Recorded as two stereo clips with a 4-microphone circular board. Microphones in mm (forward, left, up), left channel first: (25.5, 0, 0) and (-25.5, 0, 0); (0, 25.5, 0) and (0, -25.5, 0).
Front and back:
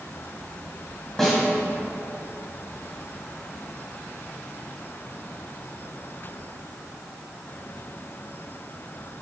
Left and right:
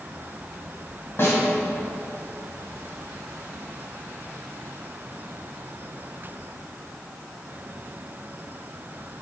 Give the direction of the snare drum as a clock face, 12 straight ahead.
9 o'clock.